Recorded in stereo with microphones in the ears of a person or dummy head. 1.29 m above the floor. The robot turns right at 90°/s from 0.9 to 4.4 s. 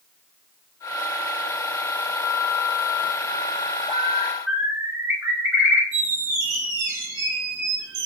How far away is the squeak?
About 0.6 m.